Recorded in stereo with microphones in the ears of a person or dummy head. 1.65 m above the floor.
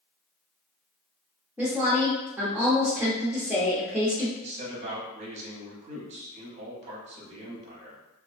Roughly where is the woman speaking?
Centre.